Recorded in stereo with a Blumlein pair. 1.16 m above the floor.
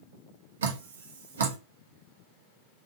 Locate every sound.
0.6 s dripping: 65° right, 1.1 m